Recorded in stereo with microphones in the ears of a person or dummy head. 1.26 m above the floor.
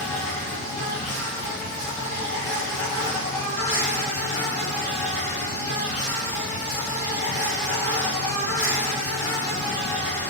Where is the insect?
15° left (ahead or behind), 1.5 m.